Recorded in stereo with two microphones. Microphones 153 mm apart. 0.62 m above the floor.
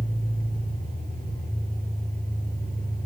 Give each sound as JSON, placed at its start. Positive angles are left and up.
{"t": 0.0, "sound": "an engine running", "side_deg": -80, "distance_m": 9.5}